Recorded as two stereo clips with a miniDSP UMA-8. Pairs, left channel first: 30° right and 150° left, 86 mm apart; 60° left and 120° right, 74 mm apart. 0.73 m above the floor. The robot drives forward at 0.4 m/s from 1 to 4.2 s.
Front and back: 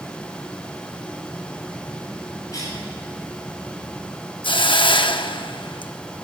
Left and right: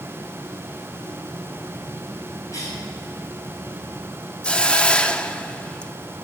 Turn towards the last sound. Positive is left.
turn(degrees=-15)